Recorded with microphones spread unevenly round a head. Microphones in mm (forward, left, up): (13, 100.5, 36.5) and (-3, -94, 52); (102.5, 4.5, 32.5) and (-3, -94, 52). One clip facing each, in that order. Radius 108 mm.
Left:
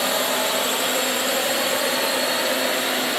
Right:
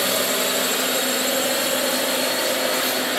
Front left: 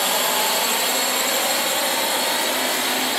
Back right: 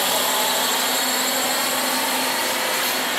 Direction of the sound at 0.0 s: 45° right.